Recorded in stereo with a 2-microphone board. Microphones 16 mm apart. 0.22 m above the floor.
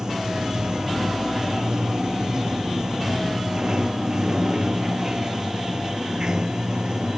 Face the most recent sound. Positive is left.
turn(degrees=-35)  # may be behind; listen again after turning